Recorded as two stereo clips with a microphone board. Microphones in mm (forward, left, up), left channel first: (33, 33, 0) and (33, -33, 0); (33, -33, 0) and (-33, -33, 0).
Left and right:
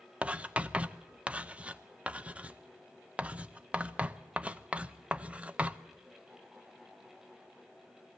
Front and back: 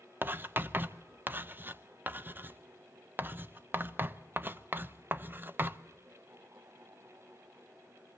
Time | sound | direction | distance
0.2 | writing | 145° right | 0.6 m